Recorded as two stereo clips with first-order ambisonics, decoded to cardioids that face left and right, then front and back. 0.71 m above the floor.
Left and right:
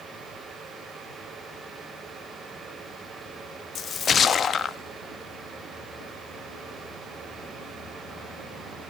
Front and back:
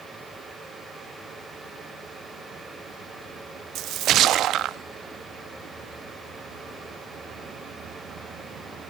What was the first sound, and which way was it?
A splash, 145° left.